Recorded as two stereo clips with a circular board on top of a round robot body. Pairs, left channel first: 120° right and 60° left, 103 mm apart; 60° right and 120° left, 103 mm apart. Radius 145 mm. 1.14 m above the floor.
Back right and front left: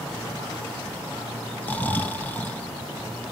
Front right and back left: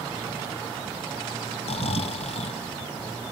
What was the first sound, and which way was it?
Snoring, 45° right.